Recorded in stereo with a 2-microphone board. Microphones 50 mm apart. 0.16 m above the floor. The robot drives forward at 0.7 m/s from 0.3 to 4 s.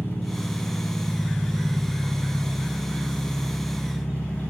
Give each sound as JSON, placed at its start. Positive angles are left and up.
{"t": 0.0, "sound": "an engine running", "side_deg": 45, "distance_m": 3.0}